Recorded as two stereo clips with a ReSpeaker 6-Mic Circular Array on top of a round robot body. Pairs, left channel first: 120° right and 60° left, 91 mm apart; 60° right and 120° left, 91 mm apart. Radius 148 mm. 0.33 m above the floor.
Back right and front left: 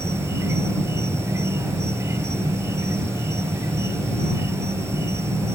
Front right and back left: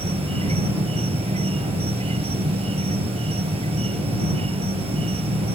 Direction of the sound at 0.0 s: 120° left.